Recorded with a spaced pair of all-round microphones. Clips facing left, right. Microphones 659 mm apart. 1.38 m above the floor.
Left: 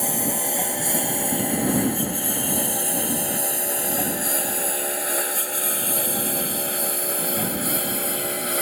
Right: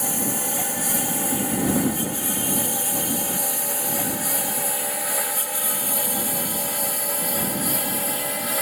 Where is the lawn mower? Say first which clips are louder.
Left 1 dB; 40° right (ahead or behind); by 8.6 s 25° right (ahead or behind).